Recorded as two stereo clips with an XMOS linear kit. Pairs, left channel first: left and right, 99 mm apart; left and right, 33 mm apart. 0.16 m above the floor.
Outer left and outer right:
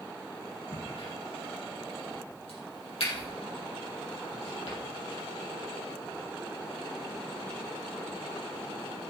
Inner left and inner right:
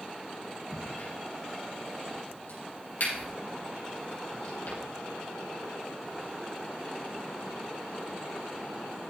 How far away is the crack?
About 5.5 m.